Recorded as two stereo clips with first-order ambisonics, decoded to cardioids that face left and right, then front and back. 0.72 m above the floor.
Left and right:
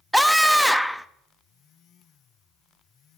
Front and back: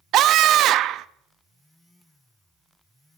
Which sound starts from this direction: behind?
A scream, at 0.1 s.